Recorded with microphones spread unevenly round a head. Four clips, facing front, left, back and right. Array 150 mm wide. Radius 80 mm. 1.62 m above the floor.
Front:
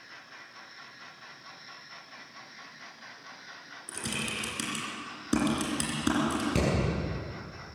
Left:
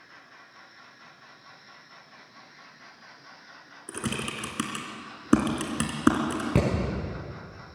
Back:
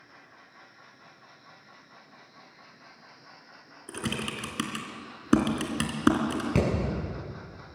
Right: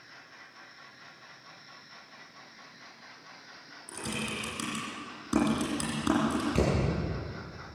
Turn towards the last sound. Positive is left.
turn(degrees=95)